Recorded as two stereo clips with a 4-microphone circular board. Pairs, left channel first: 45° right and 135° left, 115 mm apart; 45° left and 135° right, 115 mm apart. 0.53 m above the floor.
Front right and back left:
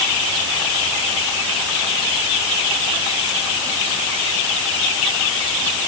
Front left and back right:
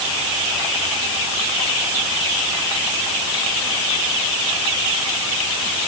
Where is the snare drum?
No snare drum in this recording.